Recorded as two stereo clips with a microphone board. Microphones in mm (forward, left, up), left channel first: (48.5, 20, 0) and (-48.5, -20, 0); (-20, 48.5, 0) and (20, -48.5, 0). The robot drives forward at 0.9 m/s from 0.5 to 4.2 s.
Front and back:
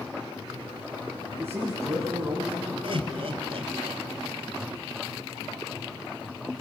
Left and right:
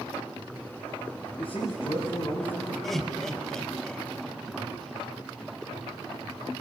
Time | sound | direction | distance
1.4 | a man speaking | 135° left | 3.5 m
2.8 | laughter | 160° right | 2.5 m